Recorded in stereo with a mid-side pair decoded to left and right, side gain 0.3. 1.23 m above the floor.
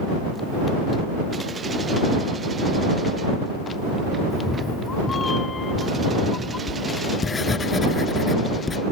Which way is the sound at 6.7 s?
45° left.